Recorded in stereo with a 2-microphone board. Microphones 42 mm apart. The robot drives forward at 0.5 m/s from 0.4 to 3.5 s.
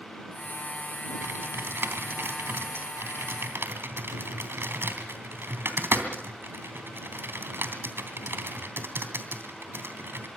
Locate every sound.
1.2 s typing on a keyboard: 65° right (ahead or behind), 3 m